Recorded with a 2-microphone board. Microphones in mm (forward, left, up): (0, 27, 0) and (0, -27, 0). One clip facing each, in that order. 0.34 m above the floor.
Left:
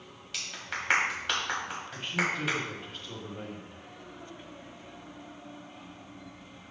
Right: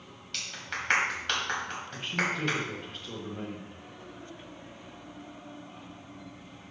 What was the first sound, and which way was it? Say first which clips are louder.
A clap: even; 5° left (ahead or behind).